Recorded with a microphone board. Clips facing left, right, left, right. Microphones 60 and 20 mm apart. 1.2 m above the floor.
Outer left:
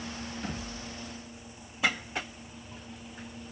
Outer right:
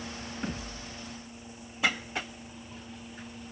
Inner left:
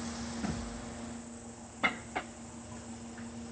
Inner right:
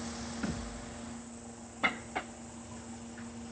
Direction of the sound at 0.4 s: 45° right (ahead or behind).